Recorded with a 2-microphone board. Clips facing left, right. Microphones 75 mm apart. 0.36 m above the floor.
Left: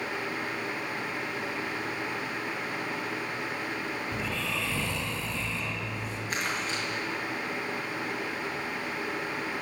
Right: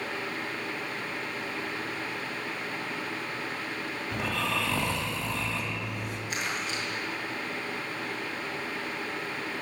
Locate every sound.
4.1 s snoring: 55° right (ahead or behind), 2.5 m
6.3 s crumpling: 40° left (ahead or behind), 5.5 m